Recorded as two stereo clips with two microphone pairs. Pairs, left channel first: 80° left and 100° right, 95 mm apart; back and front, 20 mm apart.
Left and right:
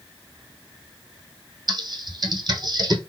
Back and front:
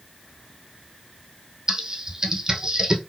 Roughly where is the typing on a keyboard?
Ahead right.